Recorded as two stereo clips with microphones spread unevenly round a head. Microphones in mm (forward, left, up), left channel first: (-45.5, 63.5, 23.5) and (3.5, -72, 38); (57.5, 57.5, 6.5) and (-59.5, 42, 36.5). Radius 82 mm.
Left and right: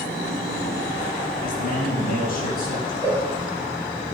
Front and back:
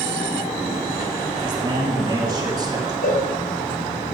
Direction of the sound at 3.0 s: 5° left.